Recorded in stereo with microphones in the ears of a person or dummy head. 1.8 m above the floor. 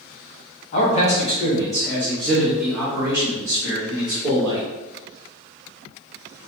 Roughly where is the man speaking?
Left.